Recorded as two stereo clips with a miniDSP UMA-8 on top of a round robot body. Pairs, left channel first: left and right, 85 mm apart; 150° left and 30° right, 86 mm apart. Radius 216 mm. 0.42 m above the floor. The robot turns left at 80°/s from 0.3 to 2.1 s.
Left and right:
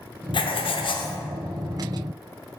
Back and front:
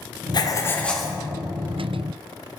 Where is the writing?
115° left, 0.7 m; by 1.2 s 50° left, 0.7 m.